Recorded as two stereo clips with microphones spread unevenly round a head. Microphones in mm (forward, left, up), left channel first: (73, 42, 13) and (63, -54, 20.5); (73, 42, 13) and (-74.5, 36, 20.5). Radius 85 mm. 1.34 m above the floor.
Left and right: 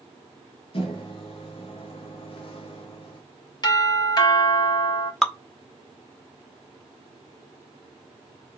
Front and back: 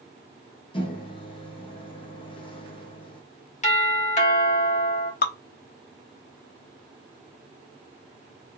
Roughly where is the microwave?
Ahead left.